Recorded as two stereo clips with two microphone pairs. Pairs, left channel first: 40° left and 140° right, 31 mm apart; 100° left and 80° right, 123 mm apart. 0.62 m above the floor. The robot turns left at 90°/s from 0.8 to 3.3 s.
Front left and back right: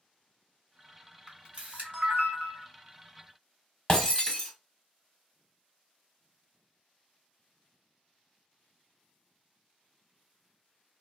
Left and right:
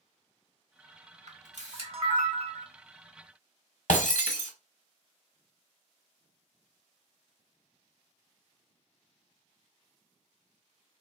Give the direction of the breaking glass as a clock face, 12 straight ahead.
8 o'clock.